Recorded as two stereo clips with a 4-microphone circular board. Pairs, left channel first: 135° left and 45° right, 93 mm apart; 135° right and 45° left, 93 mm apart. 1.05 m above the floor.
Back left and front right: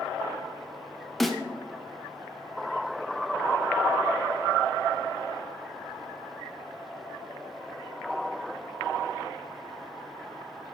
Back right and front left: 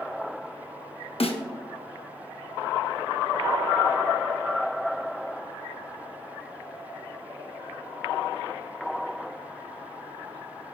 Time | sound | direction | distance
1.2 | a snare drum | 135° right | 0.7 m